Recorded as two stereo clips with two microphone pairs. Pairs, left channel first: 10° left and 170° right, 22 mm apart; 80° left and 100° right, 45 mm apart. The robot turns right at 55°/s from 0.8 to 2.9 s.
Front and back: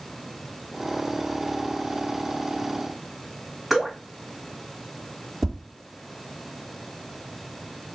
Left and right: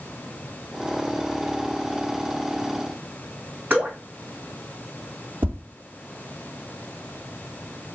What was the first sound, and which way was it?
Dripping, 75° right.